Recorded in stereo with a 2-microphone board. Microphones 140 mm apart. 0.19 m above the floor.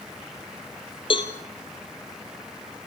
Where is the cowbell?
40° left (ahead or behind), 1.8 m.